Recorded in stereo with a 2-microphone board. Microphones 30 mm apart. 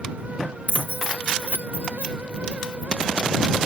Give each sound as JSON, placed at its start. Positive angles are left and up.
{"t": 0.7, "sound": "keys jangling", "side_deg": -70}